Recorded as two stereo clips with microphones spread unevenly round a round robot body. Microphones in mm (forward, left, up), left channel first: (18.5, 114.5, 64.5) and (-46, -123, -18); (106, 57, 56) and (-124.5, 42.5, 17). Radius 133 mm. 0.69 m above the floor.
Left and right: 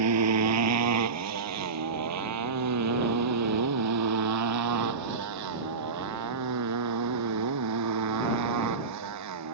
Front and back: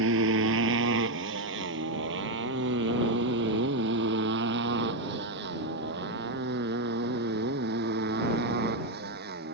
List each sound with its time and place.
0.0 s a motorcycle: 130° right; by 9.5 s 120° right